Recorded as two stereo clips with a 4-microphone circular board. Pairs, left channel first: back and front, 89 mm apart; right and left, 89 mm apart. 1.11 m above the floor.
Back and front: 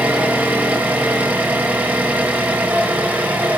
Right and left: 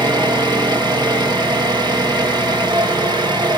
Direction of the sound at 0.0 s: 70° left.